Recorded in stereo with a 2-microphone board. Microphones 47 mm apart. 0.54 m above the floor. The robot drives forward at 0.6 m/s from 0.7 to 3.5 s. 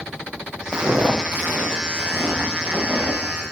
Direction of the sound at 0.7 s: 15° right (ahead or behind).